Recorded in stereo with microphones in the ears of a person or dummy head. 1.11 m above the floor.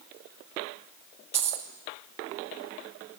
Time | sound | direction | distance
1.3 | a dropped coin | 25° right (ahead or behind) | 1.5 m